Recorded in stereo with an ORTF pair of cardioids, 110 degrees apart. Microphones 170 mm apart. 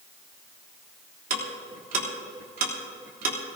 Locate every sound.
1.3 s ticking: 55° right, 3 m